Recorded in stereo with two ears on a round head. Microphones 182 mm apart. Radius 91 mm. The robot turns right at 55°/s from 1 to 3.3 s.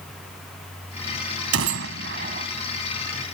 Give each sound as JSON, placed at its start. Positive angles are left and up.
{"t": 1.5, "sound": "a gunshot", "azimuth_deg": -85}